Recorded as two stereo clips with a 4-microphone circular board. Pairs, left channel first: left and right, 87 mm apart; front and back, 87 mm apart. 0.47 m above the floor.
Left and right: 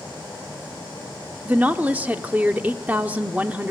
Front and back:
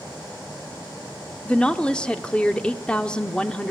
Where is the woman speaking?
55° right, 0.7 m.